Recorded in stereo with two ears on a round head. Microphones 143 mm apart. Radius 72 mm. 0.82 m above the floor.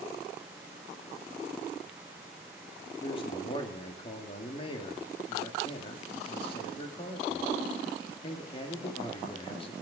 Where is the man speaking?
35° left (ahead or behind), 2 m.